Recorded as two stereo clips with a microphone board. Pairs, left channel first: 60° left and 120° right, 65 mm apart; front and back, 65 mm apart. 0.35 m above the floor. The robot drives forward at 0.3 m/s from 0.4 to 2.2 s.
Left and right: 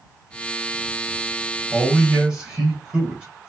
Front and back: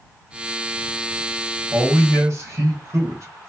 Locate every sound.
1.7 s a man speaking: 170° left, 1.6 m